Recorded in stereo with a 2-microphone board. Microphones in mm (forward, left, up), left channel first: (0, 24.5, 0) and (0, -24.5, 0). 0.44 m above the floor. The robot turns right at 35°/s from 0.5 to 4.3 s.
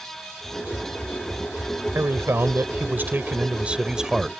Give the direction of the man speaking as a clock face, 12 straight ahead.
3 o'clock.